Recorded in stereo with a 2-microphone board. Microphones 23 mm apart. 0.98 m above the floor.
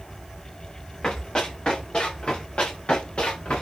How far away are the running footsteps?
About 8 m.